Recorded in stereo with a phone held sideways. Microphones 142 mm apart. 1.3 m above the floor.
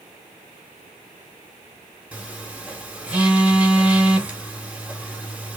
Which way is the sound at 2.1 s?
10° right (ahead or behind).